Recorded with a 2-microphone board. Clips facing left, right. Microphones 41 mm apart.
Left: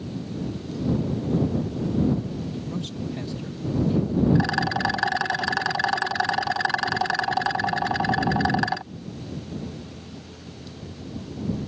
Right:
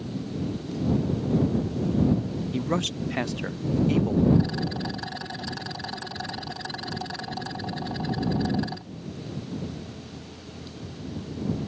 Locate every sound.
2.5 s a man speaking: 65° right (ahead or behind)
4.3 s a rattle: 75° left (ahead or behind)